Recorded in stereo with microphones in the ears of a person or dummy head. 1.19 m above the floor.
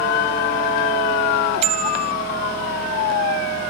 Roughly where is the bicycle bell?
Right.